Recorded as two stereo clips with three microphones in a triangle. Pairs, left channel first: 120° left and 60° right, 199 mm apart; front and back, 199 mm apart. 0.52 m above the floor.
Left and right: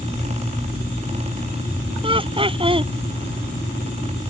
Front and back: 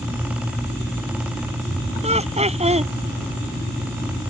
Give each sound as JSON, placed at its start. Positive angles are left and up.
{"t": 2.0, "sound": "laughter", "azimuth_deg": -125}